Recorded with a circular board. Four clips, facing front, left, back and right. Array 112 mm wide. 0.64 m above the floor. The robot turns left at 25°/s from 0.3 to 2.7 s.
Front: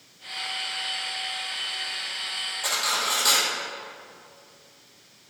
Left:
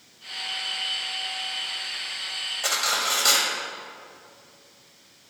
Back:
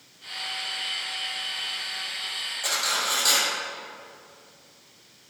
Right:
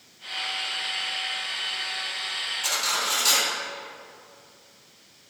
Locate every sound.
2.6 s cutlery clinking: 90° left, 1.8 m